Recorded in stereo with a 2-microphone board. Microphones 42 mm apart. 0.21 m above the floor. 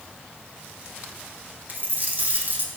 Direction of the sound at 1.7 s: 40° right (ahead or behind).